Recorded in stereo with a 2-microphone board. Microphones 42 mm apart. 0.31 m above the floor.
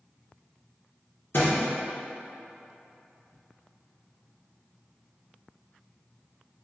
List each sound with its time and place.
1.3 s a thud: 65° left (ahead or behind), 1.7 m